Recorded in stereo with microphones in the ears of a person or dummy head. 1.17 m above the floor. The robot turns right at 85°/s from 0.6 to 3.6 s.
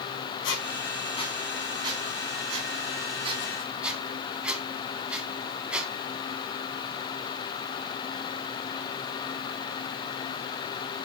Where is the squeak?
75° left (ahead or behind), 4.5 m; by 5.9 s 5° right (ahead or behind), 4.5 m.